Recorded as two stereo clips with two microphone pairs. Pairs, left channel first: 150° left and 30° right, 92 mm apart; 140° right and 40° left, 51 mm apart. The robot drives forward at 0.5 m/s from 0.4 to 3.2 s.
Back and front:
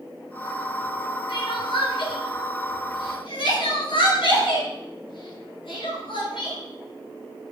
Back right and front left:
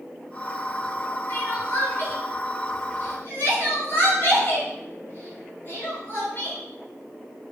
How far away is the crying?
About 8 m.